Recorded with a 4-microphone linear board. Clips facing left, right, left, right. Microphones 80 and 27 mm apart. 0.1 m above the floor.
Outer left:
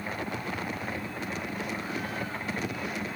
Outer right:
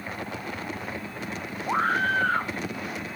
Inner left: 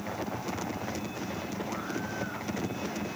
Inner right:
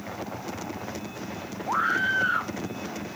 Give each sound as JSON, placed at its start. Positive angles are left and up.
{"t": 1.7, "sound": "a scream", "side_deg": -70}